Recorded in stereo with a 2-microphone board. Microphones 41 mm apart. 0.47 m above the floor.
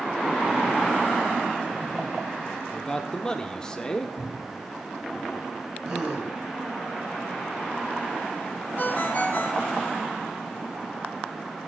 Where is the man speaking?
20° left (ahead or behind), 0.7 m.